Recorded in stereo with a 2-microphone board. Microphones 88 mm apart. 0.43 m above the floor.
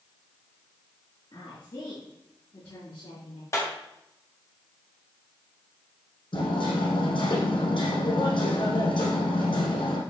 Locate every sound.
1.3 s a woman speaking: 60° left (ahead or behind), 5.5 m; by 3.4 s 70° left (ahead or behind), 5.5 m
3.5 s a clap: 30° left (ahead or behind), 2.5 m
6.3 s hammering: 75° left (ahead or behind), 5 m